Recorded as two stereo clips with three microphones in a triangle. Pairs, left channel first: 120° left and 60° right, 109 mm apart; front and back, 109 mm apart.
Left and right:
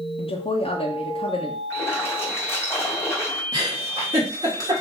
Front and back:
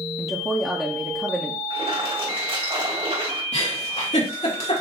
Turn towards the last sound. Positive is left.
turn(degrees=-5)